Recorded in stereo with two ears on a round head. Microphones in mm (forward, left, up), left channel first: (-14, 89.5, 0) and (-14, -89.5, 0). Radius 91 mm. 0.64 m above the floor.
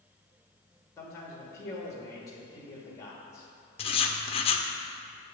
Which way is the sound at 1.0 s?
15° left (ahead or behind).